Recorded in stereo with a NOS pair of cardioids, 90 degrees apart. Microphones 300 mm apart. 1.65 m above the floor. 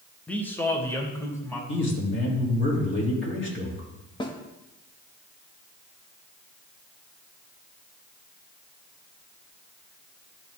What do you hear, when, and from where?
0.3 s a man speaking: 5° left, 1.1 m; by 1.6 s 10° left, 3 m
1.7 s a man speaking: 40° left, 3 m
4.2 s a snare drum: 15° left, 1.2 m